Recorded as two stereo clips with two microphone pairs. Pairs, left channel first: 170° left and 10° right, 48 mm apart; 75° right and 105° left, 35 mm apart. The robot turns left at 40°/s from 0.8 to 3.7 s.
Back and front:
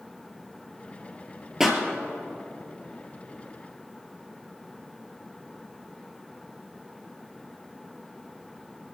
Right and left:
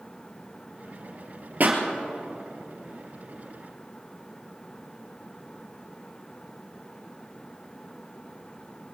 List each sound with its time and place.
1.6 s a pop: 75° left, 2 m; by 1.8 s 65° left, 2 m